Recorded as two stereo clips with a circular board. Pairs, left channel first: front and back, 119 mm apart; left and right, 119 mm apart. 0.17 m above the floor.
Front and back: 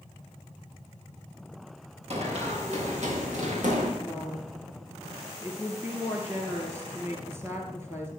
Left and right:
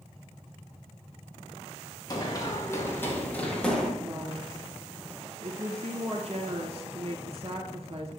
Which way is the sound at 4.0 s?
115° right.